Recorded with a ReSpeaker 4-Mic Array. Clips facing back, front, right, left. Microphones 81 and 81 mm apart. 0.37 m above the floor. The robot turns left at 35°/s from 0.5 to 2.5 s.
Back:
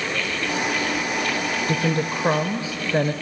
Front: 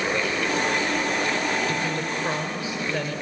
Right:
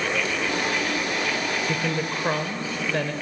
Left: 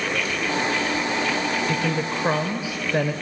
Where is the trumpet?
I don't hear a trumpet.